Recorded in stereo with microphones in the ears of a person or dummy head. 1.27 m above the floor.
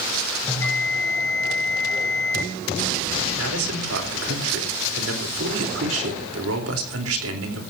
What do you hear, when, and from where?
0.5 s a bell: 10° left (ahead or behind), 3 m
3.4 s a man speaking: 85° right, 4 m